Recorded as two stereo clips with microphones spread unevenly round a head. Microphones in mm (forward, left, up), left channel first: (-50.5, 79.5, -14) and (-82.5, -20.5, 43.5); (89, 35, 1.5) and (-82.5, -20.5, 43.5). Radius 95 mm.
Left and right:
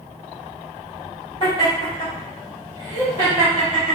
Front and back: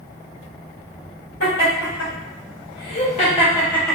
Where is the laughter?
5° left, 1.7 m; by 4.0 s 70° right, 0.7 m.